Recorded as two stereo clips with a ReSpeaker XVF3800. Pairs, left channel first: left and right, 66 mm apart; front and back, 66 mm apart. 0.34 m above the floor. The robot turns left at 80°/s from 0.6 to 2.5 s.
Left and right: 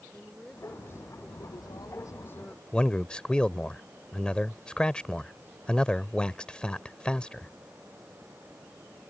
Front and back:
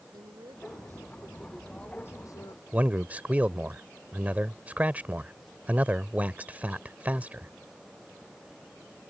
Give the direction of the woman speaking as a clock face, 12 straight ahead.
6 o'clock.